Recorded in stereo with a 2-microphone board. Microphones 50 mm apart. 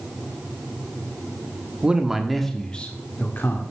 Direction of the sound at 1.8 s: 20° right (ahead or behind).